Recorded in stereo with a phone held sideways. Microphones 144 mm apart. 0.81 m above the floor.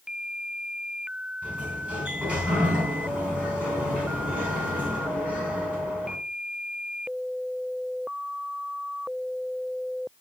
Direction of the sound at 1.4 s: 10° right (ahead or behind).